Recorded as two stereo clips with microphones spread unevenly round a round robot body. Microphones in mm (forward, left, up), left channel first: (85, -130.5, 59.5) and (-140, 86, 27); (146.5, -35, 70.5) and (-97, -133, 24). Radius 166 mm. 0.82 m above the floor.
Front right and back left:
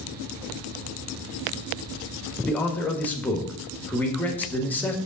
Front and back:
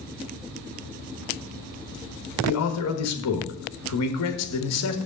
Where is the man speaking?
45° left, 1.4 m.